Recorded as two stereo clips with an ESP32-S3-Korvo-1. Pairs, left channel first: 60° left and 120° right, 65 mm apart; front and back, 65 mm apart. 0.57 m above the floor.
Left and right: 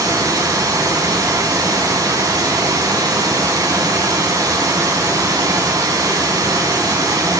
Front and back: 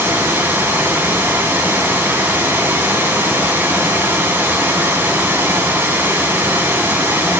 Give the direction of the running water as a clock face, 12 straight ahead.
4 o'clock.